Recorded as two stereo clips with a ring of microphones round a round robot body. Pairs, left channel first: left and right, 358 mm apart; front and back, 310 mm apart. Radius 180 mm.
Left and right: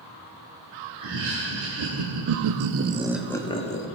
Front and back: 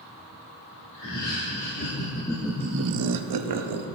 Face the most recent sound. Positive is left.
turn(degrees=160)